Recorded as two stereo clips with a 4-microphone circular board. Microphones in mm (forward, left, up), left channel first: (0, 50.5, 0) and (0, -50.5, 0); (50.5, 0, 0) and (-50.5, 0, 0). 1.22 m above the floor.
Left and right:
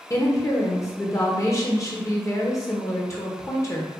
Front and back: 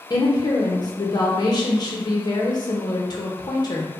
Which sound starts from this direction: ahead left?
A woman speaking, at 0.1 s.